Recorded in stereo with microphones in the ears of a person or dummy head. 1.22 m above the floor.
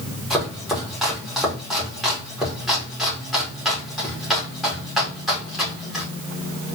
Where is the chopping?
Centre (ahead or behind), 2.5 m.